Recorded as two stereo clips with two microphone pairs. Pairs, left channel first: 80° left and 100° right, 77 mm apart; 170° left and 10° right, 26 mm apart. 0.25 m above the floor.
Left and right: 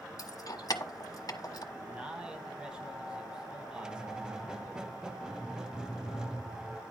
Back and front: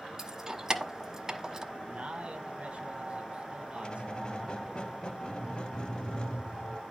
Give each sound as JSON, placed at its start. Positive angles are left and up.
{"t": 0.2, "sound": "keys jangling", "azimuth_deg": 60, "distance_m": 1.0}
{"t": 1.7, "sound": "a man speaking", "azimuth_deg": -25, "distance_m": 1.9}
{"t": 3.8, "sound": "a squeak", "azimuth_deg": -175, "distance_m": 0.5}